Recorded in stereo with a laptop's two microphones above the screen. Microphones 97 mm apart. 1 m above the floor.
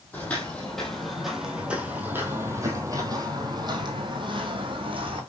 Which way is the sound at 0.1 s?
15° left (ahead or behind).